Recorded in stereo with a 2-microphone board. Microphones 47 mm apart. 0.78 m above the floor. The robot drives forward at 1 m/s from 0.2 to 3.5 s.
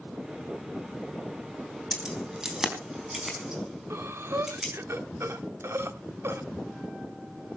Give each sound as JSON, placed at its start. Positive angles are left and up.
{"t": 1.9, "sound": "keys jangling", "side_deg": -15, "distance_m": 3.5}
{"t": 3.9, "sound": "breathing", "side_deg": -70, "distance_m": 1.1}